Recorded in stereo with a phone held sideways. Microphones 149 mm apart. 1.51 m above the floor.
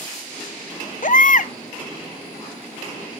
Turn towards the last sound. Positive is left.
turn(degrees=60)  # may be behind; listen again after turning